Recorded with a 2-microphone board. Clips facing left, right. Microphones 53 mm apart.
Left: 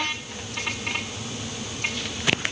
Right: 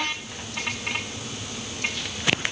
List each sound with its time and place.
Only background noise.